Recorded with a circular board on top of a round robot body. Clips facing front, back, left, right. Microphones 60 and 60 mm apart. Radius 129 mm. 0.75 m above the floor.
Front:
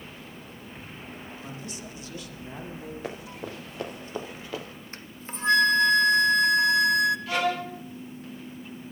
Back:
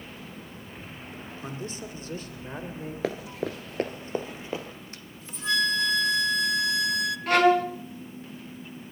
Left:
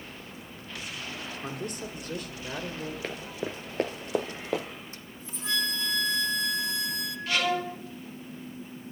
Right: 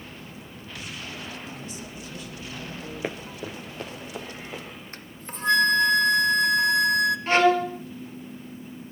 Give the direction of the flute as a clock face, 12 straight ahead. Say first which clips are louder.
Front 3 dB, right 4 dB; 2 o'clock.